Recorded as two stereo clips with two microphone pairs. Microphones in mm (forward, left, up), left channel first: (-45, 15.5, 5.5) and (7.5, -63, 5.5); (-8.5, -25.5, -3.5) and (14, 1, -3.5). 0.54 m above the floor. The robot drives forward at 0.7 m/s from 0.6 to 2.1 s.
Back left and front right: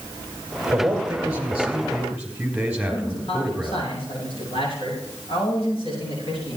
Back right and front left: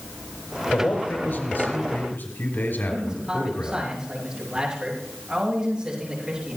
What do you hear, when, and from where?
0.7 s a man speaking: 120° right, 3.5 m; by 3.8 s 135° right, 4 m
2.9 s a man speaking: 115° left, 7 m